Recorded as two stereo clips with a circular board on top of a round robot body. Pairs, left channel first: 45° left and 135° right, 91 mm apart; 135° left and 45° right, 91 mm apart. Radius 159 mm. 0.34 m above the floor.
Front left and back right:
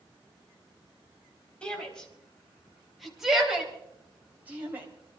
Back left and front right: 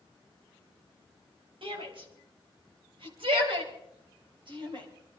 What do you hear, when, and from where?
1.6 s a shout: 35° right, 4 m; by 4.9 s 70° right, 3.5 m